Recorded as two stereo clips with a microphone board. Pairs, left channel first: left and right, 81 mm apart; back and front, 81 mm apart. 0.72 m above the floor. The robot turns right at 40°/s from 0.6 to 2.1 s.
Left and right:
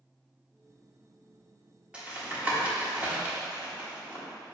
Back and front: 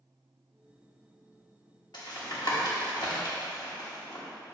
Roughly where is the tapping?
Behind.